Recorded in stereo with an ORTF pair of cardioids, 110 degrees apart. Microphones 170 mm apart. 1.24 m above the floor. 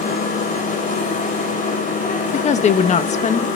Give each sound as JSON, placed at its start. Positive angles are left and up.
{"t": 0.0, "sound": "a machine running", "azimuth_deg": 50, "distance_m": 7.0}
{"t": 2.3, "sound": "a woman speaking", "azimuth_deg": 45, "distance_m": 1.8}